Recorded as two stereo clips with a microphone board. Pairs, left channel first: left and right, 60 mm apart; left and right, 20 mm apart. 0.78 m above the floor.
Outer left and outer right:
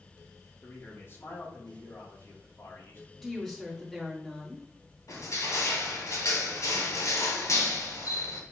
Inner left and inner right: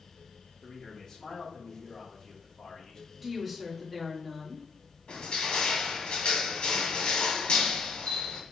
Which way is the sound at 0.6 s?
35° left (ahead or behind).